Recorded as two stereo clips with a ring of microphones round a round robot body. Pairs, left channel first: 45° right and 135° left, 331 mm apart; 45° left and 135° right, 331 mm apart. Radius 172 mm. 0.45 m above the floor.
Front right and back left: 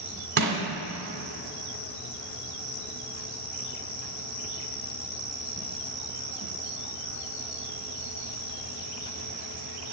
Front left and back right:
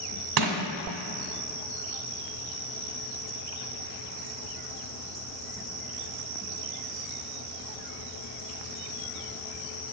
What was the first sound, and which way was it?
Crushing, 165° right.